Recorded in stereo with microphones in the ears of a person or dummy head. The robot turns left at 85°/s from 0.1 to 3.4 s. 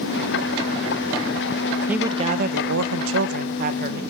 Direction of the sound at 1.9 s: 10° right.